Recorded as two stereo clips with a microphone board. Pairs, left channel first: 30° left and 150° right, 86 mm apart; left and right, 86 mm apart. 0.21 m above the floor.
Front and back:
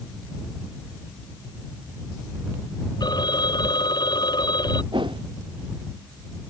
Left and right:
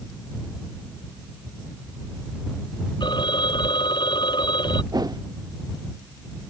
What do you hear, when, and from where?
3.0 s a phone ringing: 65° left
4.9 s a whoosh: 130° right